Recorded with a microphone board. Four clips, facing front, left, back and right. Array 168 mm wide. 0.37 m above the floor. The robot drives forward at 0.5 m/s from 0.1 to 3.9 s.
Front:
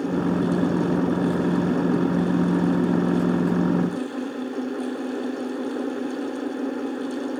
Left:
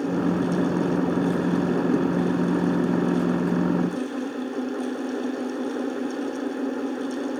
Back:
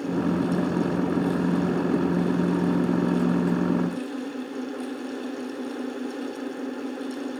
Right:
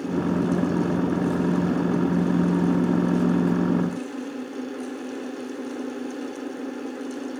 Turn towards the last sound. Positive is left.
No sound to turn to.